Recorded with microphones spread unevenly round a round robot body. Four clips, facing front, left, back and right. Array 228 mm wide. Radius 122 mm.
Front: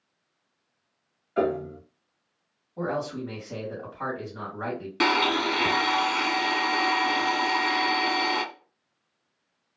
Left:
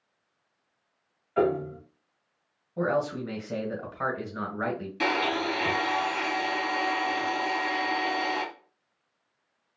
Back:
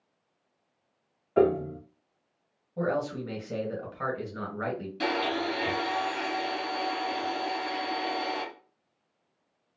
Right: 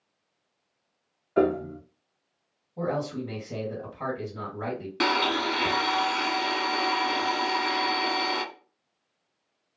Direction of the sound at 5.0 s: 20° right.